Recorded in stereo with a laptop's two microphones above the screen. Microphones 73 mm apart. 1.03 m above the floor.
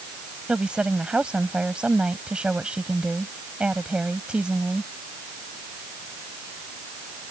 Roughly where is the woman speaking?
Centre.